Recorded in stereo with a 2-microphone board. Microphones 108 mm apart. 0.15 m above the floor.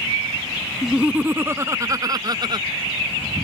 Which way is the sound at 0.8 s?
5° right (ahead or behind).